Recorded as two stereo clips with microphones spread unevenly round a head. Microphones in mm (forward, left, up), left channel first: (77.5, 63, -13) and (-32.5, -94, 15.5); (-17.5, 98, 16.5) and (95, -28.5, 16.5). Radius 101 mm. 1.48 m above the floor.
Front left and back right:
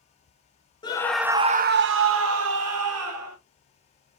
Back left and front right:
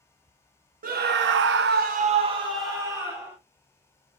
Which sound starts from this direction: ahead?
A scream, at 0.8 s.